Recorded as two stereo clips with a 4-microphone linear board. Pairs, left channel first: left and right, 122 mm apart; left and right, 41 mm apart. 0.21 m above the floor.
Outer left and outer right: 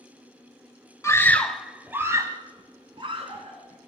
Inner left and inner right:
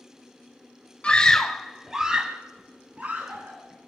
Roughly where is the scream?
Left.